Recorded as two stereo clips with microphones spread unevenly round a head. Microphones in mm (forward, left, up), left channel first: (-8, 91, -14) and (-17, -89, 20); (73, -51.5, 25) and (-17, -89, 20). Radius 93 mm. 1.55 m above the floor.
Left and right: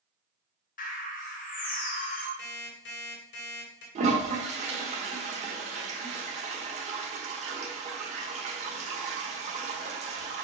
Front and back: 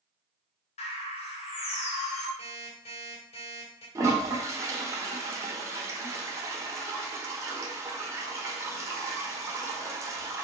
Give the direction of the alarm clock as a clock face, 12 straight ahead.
10 o'clock.